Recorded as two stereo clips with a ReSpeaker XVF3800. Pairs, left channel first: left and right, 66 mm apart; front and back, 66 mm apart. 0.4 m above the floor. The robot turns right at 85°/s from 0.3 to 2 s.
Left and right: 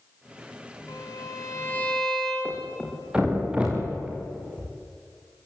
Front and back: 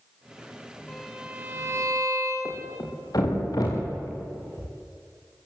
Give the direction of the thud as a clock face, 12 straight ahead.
1 o'clock.